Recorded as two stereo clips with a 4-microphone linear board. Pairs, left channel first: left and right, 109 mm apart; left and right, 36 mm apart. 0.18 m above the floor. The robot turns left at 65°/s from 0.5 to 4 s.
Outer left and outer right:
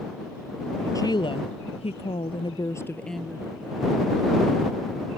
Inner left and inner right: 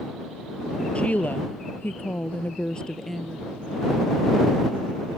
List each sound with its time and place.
0.9 s a woman speaking: 145° left; by 3.4 s 10° right